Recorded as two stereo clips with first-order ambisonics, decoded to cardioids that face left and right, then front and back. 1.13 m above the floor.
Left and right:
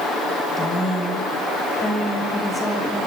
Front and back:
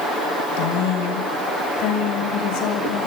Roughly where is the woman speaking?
Ahead.